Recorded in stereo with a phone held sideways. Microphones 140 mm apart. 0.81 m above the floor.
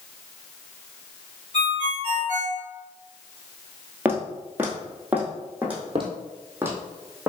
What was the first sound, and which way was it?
A ringtone, 50° left (ahead or behind).